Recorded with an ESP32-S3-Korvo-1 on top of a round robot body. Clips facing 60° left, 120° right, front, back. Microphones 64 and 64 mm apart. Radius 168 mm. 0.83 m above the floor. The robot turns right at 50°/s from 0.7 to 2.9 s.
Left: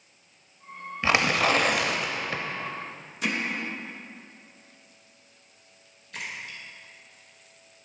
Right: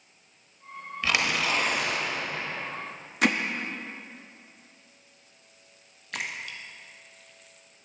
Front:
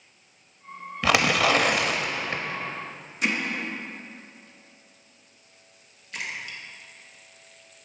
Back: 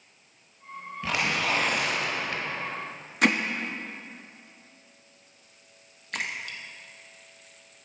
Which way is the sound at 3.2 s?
150° right.